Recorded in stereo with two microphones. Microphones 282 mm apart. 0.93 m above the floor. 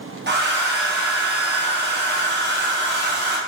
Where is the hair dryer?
40° right (ahead or behind), 0.7 m.